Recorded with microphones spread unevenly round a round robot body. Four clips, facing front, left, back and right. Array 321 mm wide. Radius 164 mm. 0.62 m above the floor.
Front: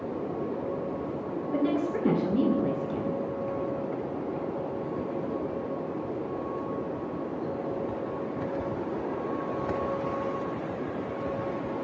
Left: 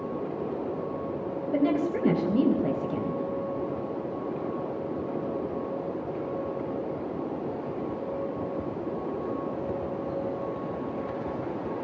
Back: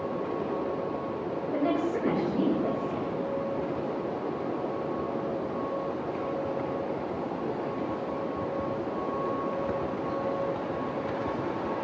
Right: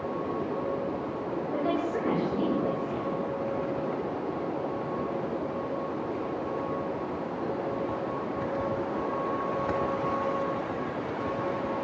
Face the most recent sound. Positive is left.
turn(degrees=70)